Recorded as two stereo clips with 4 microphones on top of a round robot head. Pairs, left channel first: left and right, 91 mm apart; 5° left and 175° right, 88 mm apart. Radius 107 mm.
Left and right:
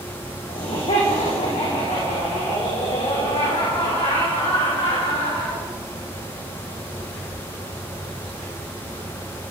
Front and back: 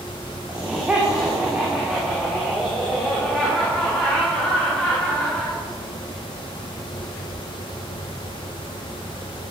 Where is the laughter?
110° left, 4 m; by 5.6 s 85° left, 5.5 m.